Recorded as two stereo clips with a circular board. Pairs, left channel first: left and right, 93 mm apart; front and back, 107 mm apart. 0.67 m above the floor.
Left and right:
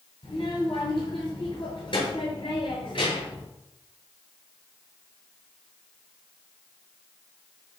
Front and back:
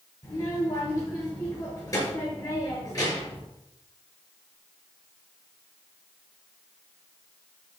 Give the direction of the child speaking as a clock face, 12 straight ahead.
10 o'clock.